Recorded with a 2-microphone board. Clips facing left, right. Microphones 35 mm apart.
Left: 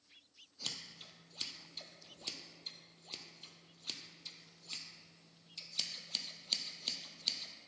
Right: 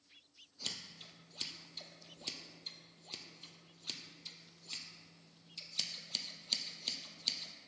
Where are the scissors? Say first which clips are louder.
Even; 5° left (ahead or behind), 0.7 m.